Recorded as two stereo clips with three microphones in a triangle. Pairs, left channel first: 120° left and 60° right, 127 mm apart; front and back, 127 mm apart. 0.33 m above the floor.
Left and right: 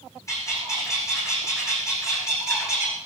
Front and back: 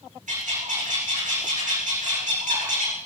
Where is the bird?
175° right, 7 m.